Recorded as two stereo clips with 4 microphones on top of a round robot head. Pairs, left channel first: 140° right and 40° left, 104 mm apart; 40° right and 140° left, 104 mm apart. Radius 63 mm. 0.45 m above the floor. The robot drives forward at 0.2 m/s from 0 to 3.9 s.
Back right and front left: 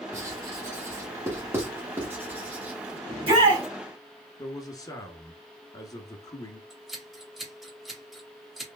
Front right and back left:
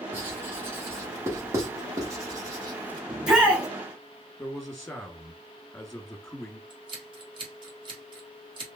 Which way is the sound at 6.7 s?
125° left.